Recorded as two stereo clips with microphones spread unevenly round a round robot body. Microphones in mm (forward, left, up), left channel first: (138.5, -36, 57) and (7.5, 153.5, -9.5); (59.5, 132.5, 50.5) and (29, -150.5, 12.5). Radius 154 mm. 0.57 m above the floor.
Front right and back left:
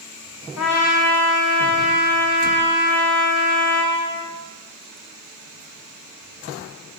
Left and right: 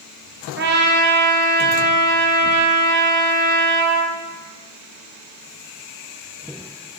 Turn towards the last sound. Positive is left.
turn(degrees=-65)